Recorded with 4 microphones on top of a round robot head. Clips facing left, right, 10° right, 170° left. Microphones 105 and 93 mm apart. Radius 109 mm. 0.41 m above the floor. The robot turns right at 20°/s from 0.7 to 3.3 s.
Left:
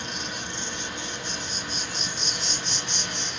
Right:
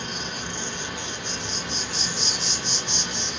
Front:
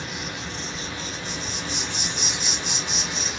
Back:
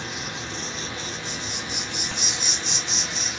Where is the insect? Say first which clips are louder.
Right 2 dB, even; 130° right, 1.1 m; by 3.4 s 75° right, 1.1 m.